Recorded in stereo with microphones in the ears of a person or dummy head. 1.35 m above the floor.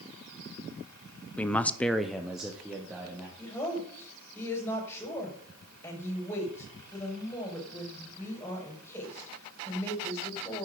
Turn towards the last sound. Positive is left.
turn(degrees=10)  # may be behind; listen again after turning